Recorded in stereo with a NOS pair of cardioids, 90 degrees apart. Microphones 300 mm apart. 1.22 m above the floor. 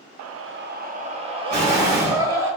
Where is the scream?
60° right, 0.6 m; by 2.5 s 10° right, 2.5 m.